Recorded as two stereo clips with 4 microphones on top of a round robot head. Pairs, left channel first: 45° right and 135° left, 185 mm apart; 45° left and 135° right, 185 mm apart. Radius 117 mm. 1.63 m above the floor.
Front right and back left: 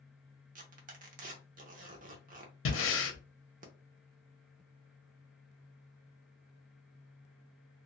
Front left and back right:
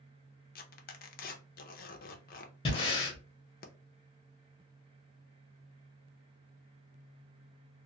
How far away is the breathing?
About 0.6 m.